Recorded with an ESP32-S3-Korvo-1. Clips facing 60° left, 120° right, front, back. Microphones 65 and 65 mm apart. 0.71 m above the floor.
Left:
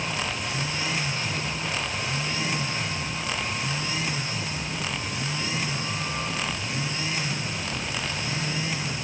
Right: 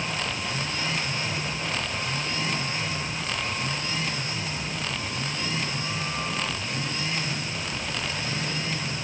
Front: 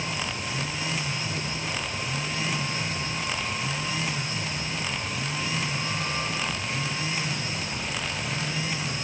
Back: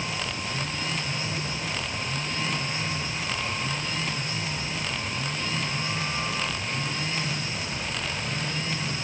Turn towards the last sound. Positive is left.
No sound to turn to.